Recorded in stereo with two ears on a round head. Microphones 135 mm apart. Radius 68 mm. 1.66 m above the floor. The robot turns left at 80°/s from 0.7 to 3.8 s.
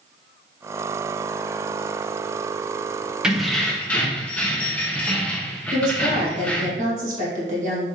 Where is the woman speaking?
50° right (ahead or behind), 1.7 m.